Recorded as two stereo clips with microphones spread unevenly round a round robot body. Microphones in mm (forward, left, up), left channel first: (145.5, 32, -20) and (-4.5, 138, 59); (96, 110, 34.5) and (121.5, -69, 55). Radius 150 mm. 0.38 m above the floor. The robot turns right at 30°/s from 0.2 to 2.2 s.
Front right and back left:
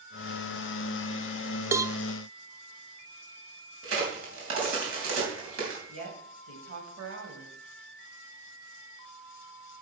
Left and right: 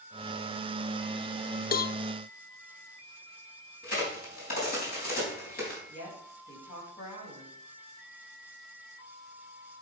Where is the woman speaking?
140° left, 3 m.